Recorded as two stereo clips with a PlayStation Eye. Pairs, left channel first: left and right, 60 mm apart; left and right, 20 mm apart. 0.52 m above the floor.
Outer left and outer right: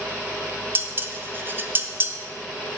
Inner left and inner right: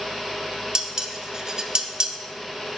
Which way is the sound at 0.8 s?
35° right (ahead or behind).